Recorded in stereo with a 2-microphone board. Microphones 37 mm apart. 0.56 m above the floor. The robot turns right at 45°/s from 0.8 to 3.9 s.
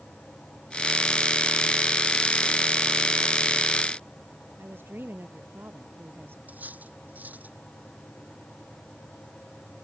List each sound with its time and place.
4.6 s a woman speaking: 75° right (ahead or behind)
6.5 s cutlery clinking: 50° right (ahead or behind)